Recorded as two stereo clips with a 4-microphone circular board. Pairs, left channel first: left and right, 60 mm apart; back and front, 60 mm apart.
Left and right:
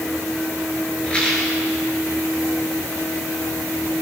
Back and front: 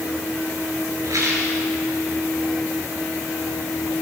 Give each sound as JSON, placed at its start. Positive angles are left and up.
{"t": 1.0, "sound": "a rattle", "azimuth_deg": 15, "distance_m": 6.0}